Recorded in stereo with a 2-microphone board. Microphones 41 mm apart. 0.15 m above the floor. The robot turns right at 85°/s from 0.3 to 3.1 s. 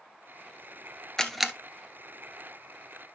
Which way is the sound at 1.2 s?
15° left (ahead or behind).